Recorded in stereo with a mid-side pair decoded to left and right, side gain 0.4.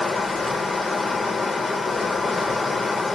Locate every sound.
0.0 s running water: 30° left, 0.8 m